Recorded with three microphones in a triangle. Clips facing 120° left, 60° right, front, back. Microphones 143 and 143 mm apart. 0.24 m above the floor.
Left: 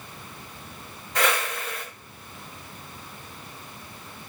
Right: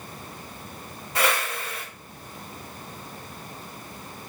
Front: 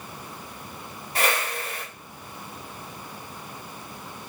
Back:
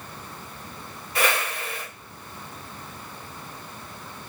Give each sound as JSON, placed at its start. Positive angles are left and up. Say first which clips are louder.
{"t": 1.1, "sound": "a whoosh", "louder": "even, back 1 dB", "azimuth_deg": 10, "distance_m": 1.8}